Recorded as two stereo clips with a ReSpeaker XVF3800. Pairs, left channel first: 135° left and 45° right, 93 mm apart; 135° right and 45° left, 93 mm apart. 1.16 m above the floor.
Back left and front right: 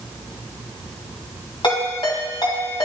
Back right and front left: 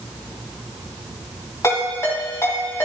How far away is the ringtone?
About 3 m.